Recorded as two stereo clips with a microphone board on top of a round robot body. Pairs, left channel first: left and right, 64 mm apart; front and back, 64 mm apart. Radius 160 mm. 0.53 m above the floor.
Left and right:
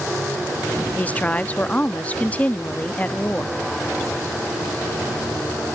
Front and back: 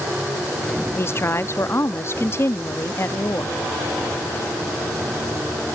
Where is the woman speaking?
30° left.